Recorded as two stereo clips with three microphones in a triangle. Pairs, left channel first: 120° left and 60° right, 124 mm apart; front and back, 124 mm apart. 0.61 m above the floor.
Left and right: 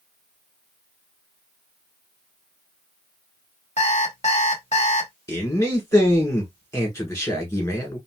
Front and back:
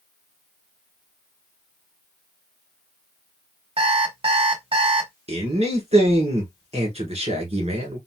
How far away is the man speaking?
About 1.6 m.